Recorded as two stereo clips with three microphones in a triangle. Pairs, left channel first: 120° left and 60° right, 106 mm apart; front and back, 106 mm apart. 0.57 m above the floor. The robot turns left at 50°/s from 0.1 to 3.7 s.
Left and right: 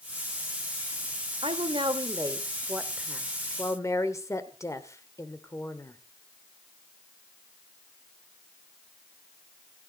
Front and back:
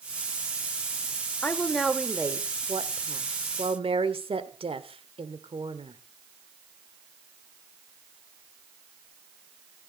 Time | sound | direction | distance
1.4 | a woman speaking | 70° right | 1.8 m